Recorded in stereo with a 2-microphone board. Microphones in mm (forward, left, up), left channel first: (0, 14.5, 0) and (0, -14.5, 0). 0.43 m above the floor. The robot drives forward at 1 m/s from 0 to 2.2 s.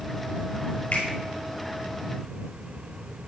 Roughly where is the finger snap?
Left.